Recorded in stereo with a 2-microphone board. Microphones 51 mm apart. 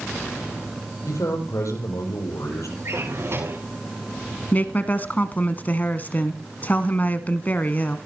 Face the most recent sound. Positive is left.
turn(degrees=35)  # may be behind; listen again after turning